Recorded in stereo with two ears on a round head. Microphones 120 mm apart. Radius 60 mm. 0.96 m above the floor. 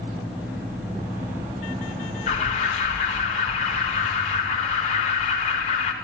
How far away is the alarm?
About 2 m.